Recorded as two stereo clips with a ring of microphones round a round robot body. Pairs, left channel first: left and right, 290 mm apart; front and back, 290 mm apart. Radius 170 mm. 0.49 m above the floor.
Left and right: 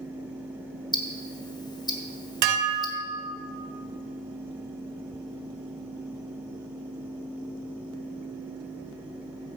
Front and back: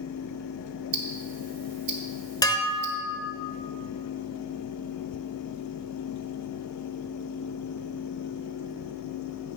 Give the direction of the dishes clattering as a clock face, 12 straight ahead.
3 o'clock.